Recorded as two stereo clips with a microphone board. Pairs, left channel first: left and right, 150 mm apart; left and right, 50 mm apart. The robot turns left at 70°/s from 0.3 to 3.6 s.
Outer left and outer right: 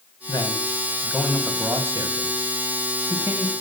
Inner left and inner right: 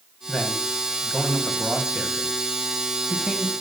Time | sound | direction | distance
0.3 | a man speaking | 30° left (ahead or behind) | 1.8 m